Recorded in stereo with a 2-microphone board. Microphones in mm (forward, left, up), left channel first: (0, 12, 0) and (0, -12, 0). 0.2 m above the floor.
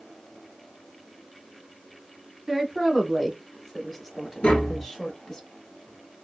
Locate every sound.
2.5 s a woman speaking: 10° right (ahead or behind), 1.2 m; by 5.4 s 15° left (ahead or behind), 1.3 m
4.4 s tapping: 70° left (ahead or behind), 0.9 m